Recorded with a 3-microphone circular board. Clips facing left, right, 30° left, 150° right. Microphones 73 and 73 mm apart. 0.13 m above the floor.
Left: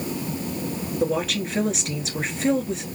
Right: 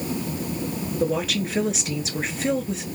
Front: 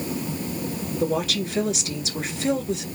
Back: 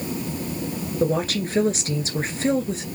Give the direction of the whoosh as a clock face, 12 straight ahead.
I don't hear a whoosh.